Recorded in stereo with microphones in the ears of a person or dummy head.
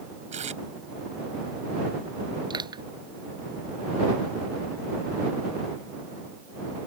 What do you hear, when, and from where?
0.3 s tape being pulled: 40° right (ahead or behind)
2.5 s crushing: 25° right (ahead or behind)